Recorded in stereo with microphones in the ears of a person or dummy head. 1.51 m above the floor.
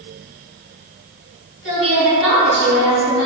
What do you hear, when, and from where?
1.6 s a woman speaking: 5° right (ahead or behind), 1.8 m